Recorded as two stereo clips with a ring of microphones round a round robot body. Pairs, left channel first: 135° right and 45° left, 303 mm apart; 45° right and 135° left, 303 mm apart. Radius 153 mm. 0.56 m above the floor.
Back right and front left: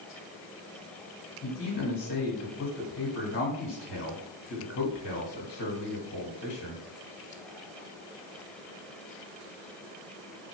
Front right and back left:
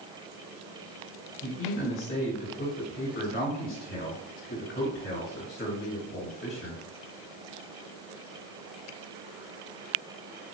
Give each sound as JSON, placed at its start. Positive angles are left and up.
{"t": 1.4, "sound": "a man speaking", "azimuth_deg": -85, "distance_m": 2.0}